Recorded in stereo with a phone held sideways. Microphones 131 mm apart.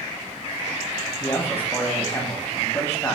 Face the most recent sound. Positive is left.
turn(degrees=20)  # may be behind; listen again after turning